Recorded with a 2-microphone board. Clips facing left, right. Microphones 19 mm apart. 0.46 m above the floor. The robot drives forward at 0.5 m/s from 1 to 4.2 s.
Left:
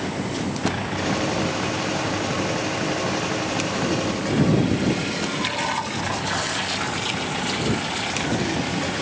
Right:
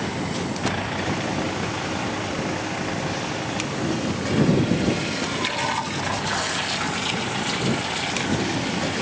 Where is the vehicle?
Centre (ahead or behind); by 9.0 s 5° left (ahead or behind).